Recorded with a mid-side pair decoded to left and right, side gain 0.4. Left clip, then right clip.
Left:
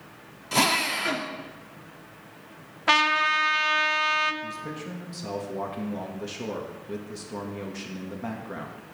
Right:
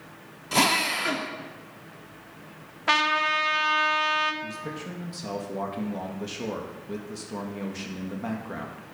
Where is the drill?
Straight ahead, 1.4 m.